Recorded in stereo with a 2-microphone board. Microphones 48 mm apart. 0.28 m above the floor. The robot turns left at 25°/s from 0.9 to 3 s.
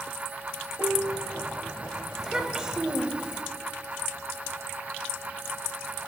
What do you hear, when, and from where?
0.8 s a piano: 70° right (ahead or behind), 1.0 m; by 1.3 s 80° right, 1.0 m
2.2 s a child speaking: 10° right (ahead or behind), 0.8 m; by 3.4 s 20° right (ahead or behind), 0.8 m